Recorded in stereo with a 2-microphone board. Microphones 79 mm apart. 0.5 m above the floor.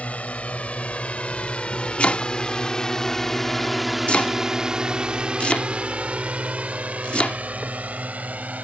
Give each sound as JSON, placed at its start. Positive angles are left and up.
{"t": 0.0, "sound": "a drone", "side_deg": 20}
{"t": 2.0, "sound": "chopping", "side_deg": 15}